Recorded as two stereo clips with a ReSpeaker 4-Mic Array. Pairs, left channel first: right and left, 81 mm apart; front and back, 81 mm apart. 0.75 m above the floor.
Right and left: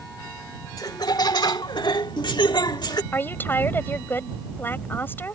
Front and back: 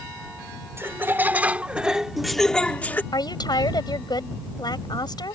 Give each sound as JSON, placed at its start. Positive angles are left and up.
{"t": 0.8, "sound": "laughter", "azimuth_deg": -120}
{"t": 3.1, "sound": "a woman speaking", "azimuth_deg": -25}